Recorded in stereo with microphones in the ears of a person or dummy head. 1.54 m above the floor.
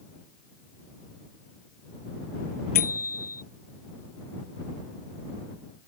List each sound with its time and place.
2.8 s a bicycle bell: 45° left (ahead or behind)